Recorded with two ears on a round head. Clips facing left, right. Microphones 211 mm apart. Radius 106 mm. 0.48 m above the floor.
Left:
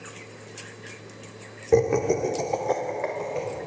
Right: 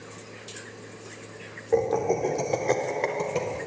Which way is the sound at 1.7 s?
45° left (ahead or behind).